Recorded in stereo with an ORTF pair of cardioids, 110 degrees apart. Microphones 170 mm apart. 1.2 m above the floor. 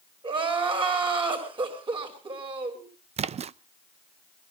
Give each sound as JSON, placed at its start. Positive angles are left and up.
{"t": 0.2, "sound": "crying", "azimuth_deg": -30, "distance_m": 6.0}
{"t": 3.2, "sound": "a splash", "azimuth_deg": -40, "distance_m": 0.6}